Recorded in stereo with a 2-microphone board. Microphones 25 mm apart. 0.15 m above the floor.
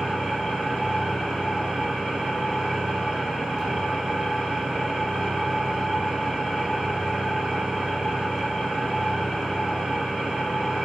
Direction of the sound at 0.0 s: 40° right (ahead or behind).